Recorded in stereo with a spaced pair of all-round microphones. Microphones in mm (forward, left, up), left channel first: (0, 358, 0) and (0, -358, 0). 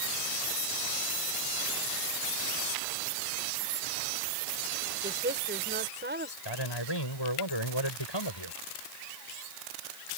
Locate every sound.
5.0 s a woman speaking: 15° right (ahead or behind)
6.5 s a man speaking: 35° left (ahead or behind)